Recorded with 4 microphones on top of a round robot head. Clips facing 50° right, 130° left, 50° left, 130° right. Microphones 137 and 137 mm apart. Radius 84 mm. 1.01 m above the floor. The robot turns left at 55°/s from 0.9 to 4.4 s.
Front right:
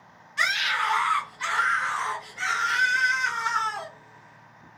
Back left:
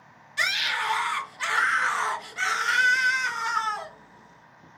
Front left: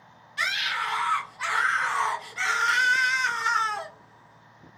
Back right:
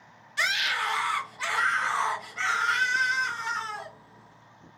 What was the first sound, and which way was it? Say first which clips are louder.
A scream: front right 2 dB, back right 1 dB; 170° right.